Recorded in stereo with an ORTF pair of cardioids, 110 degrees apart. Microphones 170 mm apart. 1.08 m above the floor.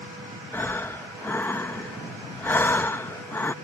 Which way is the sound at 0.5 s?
15° left.